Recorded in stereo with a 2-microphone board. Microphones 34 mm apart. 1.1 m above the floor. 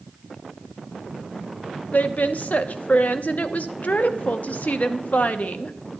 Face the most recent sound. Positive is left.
turn(degrees=65)  # may be behind; listen again after turning